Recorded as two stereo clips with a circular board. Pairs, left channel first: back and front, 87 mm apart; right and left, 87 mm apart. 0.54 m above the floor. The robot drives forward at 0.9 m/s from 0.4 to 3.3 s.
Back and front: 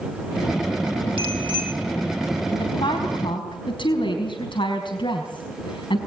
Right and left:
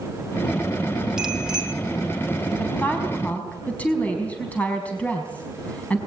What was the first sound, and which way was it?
A bicycle bell, 5° left.